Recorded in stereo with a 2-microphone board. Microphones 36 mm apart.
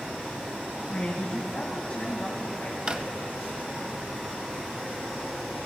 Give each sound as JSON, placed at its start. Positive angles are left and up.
{"t": 0.9, "sound": "a woman speaking", "side_deg": 35, "distance_m": 1.7}
{"t": 2.9, "sound": "a drawer", "side_deg": -30, "distance_m": 0.5}